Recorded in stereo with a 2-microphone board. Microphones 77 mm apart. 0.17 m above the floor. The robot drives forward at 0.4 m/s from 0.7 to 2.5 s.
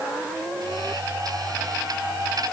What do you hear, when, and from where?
Only background noise.